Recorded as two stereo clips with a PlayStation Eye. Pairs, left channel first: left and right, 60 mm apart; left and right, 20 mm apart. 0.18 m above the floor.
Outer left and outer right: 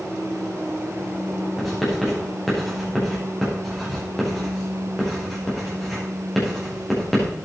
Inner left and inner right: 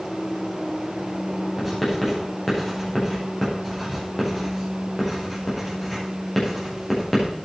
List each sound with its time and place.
1.6 s writing: centre (ahead or behind), 7 m